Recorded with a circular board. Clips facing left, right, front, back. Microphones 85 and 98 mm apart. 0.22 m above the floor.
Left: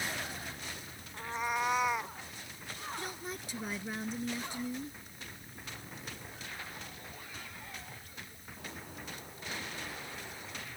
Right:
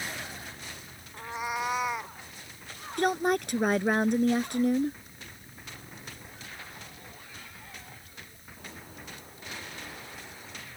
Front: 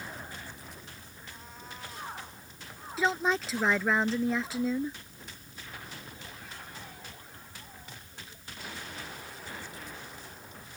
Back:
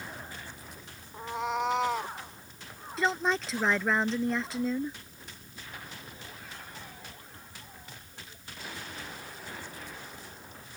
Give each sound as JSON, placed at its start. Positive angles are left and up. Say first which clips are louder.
{"t": 1.1, "sound": "a cat meowing", "louder": "right 1 dB, back 22 dB", "azimuth_deg": -170}
{"t": 3.0, "sound": "a woman speaking", "louder": "right 16 dB, even", "azimuth_deg": -90}